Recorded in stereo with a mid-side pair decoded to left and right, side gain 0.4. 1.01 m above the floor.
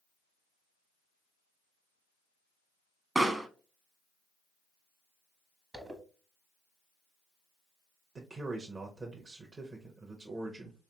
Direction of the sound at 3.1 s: 20° right.